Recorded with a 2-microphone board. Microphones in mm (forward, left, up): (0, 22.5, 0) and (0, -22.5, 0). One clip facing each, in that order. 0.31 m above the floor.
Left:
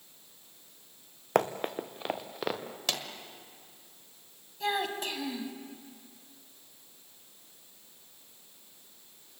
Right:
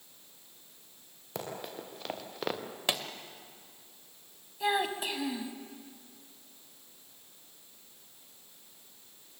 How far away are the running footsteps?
About 1.7 m.